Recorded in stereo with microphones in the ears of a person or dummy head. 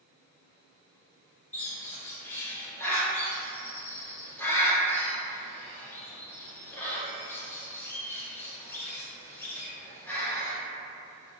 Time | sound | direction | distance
1.5 | a bird | 10° left (ahead or behind) | 0.5 m